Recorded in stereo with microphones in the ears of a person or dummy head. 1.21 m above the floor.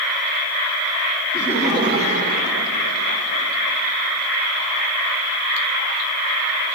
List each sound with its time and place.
1.3 s laughter: centre (ahead or behind), 0.8 m; by 3.5 s 75° right (ahead or behind), 1.2 m